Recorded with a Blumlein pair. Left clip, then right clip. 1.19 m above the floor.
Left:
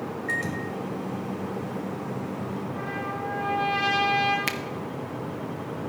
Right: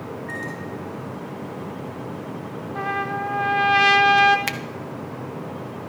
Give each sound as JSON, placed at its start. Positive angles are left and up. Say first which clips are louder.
{"t": 0.3, "sound": "a microwave", "louder": "left 4 dB", "azimuth_deg": 25, "distance_m": 3.0}
{"t": 2.8, "sound": "a trumpet", "louder": "right 9 dB", "azimuth_deg": -30, "distance_m": 1.3}
{"t": 4.5, "sound": "a finger snap", "louder": "right 2 dB", "azimuth_deg": -5, "distance_m": 0.7}